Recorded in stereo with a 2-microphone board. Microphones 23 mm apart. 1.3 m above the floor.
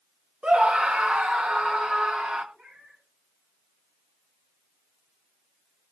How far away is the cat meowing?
About 5.5 m.